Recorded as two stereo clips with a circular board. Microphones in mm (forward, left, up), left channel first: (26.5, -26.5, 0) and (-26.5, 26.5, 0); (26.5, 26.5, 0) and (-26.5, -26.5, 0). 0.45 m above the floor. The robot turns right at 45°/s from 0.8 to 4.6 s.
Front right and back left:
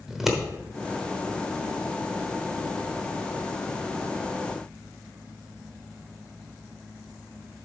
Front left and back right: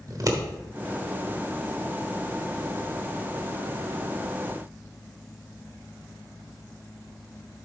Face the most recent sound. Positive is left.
turn(degrees=30)